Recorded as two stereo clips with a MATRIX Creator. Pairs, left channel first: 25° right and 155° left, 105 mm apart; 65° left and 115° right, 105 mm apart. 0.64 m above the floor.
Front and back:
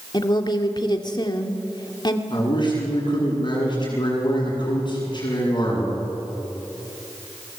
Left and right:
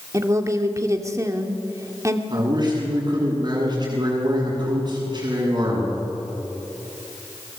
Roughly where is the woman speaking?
Ahead right.